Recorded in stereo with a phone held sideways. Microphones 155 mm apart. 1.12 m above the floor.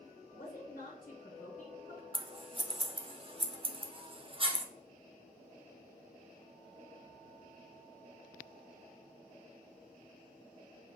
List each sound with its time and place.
0.3 s a woman speaking: 60° left (ahead or behind), 1.1 m
2.1 s scissors: 35° right (ahead or behind), 0.6 m